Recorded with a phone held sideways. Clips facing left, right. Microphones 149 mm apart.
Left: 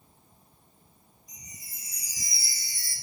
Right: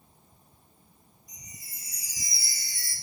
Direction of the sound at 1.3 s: 20° left (ahead or behind).